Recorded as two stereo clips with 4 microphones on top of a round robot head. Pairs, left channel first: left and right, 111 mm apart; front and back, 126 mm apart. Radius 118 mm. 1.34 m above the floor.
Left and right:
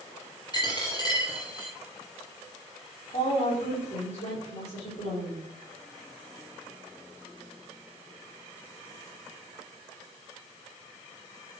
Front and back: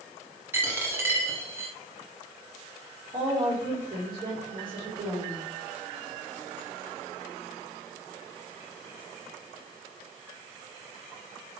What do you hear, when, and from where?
0.5 s a dropped coin: 125° left, 1.3 m
3.1 s a woman speaking: 130° left, 4.5 m